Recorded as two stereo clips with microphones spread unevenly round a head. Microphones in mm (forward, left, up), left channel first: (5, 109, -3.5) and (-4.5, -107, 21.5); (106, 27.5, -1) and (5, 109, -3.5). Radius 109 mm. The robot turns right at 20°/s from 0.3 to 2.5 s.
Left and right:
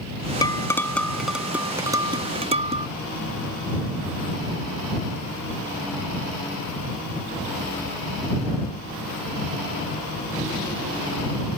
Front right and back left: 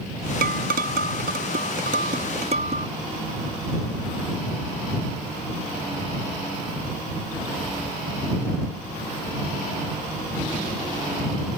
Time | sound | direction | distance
0.4 | dishes clattering | 160° left | ?